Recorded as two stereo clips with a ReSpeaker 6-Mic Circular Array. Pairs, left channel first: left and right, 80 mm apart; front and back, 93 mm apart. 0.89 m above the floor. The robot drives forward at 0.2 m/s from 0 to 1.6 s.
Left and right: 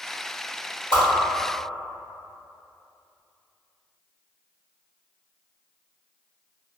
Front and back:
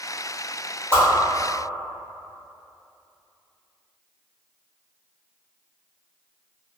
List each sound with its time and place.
0.9 s a whoosh: 120° left, 1.2 m